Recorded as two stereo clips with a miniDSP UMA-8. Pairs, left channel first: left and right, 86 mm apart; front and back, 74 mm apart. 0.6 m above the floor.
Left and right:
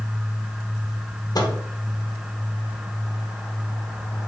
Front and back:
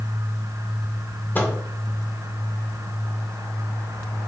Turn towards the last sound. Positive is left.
turn(degrees=60)